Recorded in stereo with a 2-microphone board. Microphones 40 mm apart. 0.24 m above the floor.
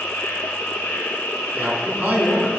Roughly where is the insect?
Left.